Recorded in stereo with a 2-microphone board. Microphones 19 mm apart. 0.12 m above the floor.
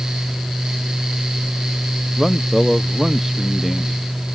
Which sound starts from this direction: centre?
A man speaking, at 2.2 s.